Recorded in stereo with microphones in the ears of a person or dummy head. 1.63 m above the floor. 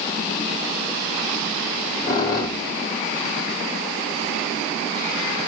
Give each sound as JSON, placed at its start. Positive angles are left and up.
{"t": 1.7, "sound": "a squeak", "side_deg": 25, "distance_m": 0.7}